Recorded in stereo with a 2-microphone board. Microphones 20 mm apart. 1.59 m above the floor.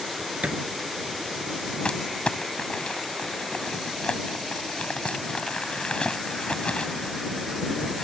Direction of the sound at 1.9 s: 65° left (ahead or behind).